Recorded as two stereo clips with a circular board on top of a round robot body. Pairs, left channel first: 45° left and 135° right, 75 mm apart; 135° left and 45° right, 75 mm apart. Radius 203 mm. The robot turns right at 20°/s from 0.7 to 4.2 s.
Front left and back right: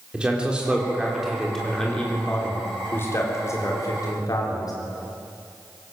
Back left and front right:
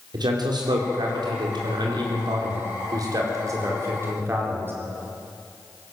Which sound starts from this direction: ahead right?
A man speaking, at 0.1 s.